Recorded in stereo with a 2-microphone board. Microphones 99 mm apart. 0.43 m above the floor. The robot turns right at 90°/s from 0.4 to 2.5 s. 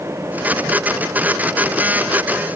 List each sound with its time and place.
Only background noise.